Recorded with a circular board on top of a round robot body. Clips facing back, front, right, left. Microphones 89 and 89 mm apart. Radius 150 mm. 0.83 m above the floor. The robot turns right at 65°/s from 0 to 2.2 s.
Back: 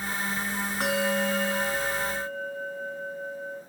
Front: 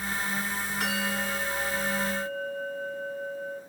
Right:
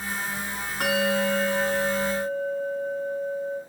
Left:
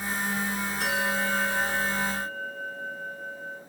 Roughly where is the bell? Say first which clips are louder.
Back 6 dB, right 6 dB; behind right.